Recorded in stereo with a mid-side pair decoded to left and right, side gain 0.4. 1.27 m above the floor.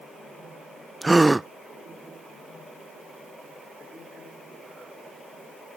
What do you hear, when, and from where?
1.0 s a gasp: 15° right